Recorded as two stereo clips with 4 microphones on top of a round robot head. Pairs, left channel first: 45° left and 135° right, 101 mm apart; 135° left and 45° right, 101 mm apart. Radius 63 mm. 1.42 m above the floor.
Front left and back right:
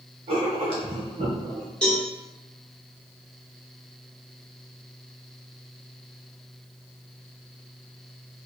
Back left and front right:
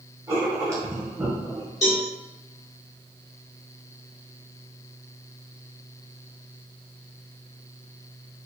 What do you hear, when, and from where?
0.3 s writing: 110° right, 1.3 m
1.8 s a cowbell: 120° left, 1.0 m